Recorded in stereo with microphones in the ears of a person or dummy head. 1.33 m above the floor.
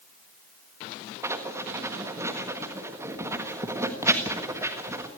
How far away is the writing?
About 1.5 m.